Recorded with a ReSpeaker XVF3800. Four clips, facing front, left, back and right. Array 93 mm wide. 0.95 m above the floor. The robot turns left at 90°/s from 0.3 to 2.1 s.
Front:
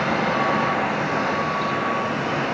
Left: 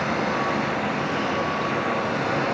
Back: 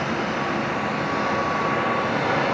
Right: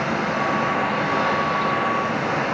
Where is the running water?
10° right, 3.5 m; by 2.5 s 175° right, 3.5 m.